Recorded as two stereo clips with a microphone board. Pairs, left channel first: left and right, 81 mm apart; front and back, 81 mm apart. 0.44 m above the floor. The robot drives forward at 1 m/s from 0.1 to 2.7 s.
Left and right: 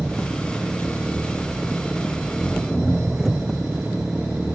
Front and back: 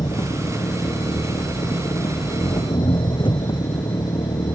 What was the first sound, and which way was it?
An engine running, 5° right.